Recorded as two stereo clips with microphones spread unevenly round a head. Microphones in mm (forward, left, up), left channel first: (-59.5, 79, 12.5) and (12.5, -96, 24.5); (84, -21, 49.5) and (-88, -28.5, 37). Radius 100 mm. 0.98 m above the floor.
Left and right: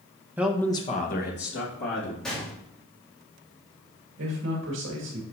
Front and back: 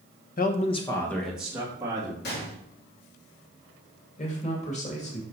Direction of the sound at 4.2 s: 45° right.